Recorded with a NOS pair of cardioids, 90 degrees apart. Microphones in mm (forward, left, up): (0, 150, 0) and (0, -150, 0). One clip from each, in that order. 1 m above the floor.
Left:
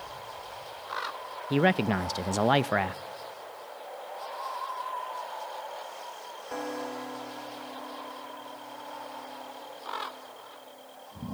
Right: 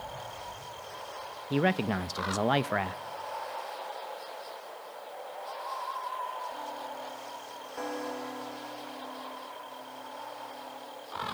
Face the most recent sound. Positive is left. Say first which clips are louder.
# left 3 dB
turn(degrees=10)